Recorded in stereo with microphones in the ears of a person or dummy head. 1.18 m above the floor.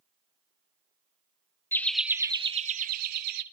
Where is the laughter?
10° left (ahead or behind), 0.6 m; by 3.4 s 65° right (ahead or behind), 1.0 m.